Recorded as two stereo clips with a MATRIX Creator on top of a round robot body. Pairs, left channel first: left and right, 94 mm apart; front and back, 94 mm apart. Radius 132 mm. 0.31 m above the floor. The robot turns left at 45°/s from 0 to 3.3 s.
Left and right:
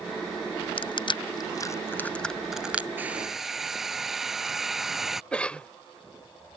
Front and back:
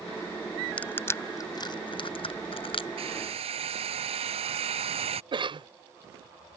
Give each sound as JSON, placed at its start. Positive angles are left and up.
{"t": 0.8, "sound": "crushing", "azimuth_deg": 75}
{"t": 3.0, "sound": "a hair dryer", "azimuth_deg": -160}
{"t": 5.3, "sound": "a cough", "azimuth_deg": 165}